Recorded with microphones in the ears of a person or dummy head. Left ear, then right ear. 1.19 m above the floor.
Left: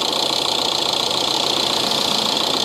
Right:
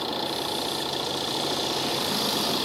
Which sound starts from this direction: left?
An engine running, at 0.0 s.